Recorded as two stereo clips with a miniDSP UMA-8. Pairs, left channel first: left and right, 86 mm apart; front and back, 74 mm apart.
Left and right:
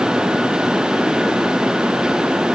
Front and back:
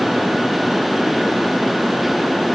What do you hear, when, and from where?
Only background noise.